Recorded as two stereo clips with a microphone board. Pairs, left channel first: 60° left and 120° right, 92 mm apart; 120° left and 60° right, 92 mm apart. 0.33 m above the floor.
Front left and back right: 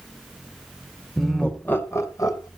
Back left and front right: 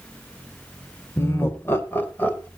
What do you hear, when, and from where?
1.2 s laughter: 145° left, 1.4 m; by 2.5 s 55° left, 1.7 m